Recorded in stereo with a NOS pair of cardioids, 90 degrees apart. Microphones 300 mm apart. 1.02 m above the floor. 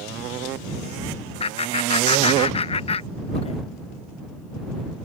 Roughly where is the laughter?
Ahead.